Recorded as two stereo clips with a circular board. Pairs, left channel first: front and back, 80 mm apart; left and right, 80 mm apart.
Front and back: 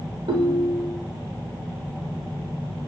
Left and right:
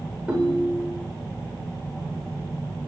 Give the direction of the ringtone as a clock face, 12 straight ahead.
6 o'clock.